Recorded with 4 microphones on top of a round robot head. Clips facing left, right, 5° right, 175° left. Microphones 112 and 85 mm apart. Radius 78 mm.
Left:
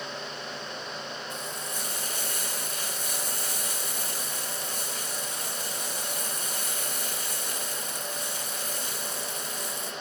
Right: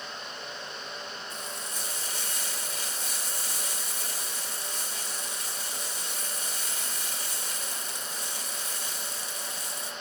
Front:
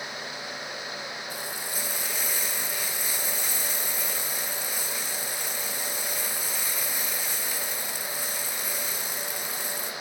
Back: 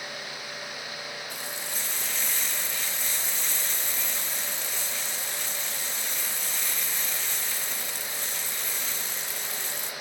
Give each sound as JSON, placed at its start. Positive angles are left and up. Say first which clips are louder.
{"t": 1.3, "sound": "frying", "louder": "left 3 dB, front 2 dB", "azimuth_deg": 70, "distance_m": 1.5}